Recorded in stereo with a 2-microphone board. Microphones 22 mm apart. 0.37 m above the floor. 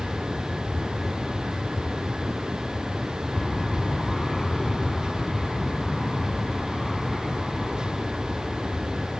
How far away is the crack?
No crack in this recording.